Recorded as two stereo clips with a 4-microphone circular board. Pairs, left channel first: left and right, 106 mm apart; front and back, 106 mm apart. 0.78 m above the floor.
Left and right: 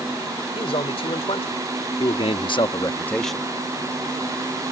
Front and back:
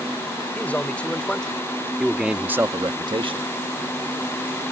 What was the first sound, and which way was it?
A man speaking, 75° left.